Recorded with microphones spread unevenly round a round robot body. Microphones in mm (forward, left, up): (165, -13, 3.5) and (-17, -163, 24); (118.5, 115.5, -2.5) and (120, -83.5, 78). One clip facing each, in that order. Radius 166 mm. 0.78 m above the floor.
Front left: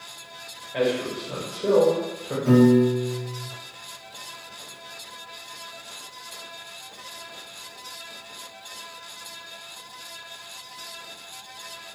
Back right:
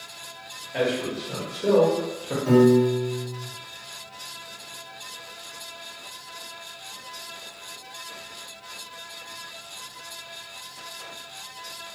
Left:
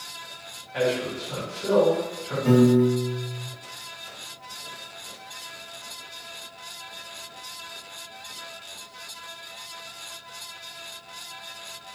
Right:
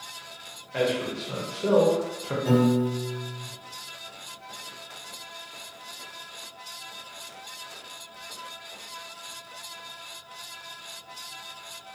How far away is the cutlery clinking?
No cutlery clinking in this recording.